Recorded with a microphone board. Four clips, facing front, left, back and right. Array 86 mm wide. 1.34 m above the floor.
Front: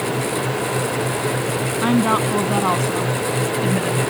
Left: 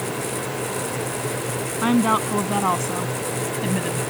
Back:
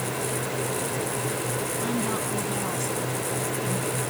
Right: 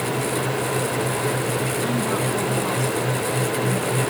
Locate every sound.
1.8 s a woman speaking: 40° left; by 4.0 s 35° left